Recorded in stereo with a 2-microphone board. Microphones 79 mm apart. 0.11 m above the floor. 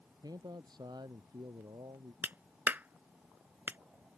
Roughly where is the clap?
Right.